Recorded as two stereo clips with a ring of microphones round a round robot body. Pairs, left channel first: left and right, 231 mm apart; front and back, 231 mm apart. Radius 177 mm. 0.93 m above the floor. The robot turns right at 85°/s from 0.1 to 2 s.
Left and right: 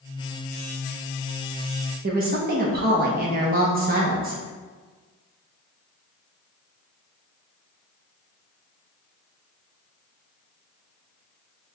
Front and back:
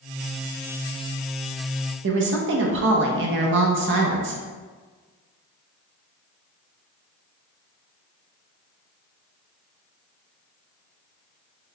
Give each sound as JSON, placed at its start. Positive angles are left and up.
{"t": 2.0, "sound": "a woman speaking", "azimuth_deg": -145, "distance_m": 0.5}